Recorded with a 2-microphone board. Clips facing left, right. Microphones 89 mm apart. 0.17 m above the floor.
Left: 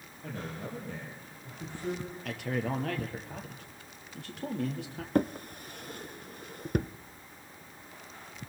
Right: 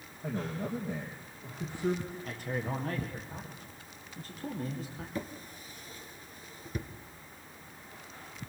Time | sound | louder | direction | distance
0.2 | a man speaking | right 4 dB | 15° right (ahead or behind) | 5 m
2.2 | a man speaking | left 4 dB | 70° left (ahead or behind) | 5 m
5.2 | a drawer | left 13 dB | 55° left (ahead or behind) | 0.6 m